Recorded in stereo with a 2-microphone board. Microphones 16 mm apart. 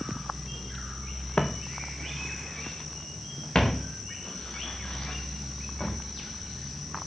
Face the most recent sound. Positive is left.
turn(degrees=65)  # may be behind; listen again after turning